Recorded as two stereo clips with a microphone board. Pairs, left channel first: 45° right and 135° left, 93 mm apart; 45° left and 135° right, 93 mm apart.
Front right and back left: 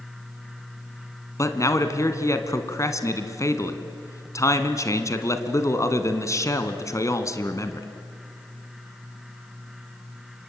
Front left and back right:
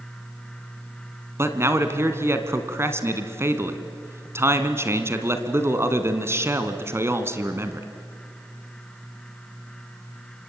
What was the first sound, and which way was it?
A man speaking, 85° right.